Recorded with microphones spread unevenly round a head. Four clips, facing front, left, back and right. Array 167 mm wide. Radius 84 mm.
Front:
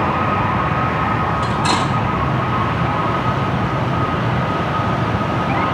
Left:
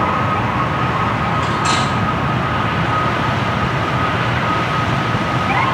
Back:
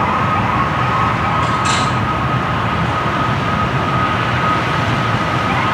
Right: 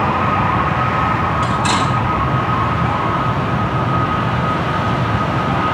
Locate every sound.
1.4 s cutlery clinking: straight ahead, 2.5 m